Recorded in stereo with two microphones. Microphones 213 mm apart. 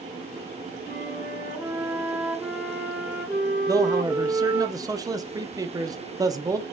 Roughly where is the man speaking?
Centre.